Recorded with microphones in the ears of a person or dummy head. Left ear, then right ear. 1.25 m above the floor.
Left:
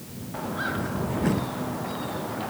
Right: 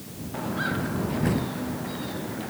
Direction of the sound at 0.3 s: 5° left (ahead or behind).